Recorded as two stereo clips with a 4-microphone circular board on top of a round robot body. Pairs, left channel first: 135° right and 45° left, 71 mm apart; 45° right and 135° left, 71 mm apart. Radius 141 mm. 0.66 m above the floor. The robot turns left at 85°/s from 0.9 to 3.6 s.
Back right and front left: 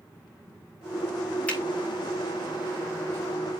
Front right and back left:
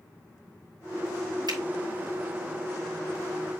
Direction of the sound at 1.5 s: 155° left.